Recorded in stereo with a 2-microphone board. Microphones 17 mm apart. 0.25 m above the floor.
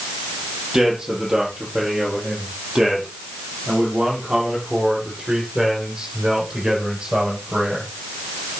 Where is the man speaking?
25° right (ahead or behind), 6.5 m; by 7.9 s 55° right (ahead or behind), 7.5 m.